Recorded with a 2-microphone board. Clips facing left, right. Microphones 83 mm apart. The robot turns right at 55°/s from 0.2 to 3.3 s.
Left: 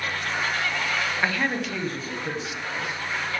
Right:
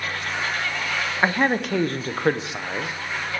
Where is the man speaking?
150° right, 0.5 m; by 2.9 s 55° right, 0.5 m.